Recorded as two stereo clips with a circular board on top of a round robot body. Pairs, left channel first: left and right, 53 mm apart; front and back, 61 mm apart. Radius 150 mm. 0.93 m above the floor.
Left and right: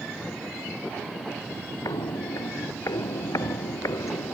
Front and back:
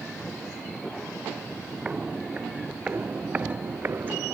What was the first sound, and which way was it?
Footsteps, 105° left.